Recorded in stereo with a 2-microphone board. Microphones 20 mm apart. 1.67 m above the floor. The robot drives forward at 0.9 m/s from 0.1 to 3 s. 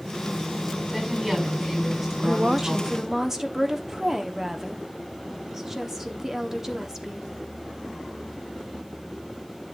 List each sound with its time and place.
0.9 s a woman speaking: 15° right (ahead or behind), 5.5 m
2.2 s a woman speaking: 50° right (ahead or behind), 0.5 m; by 7.3 s 20° right (ahead or behind), 1.1 m